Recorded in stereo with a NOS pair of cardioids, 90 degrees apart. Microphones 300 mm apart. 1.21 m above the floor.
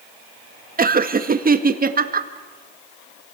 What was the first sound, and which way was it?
Laughter, 30° right.